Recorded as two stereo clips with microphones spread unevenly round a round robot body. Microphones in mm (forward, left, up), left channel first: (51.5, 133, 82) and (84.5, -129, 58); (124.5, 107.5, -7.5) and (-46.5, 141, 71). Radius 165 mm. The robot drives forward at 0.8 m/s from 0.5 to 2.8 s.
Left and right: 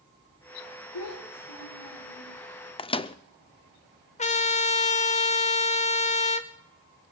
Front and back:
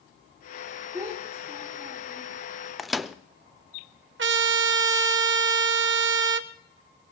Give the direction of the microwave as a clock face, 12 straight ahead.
11 o'clock.